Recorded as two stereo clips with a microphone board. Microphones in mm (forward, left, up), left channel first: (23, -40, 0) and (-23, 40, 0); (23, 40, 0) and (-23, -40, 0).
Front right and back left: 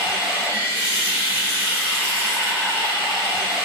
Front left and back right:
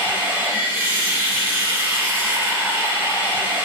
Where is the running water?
Straight behind, 1.5 m.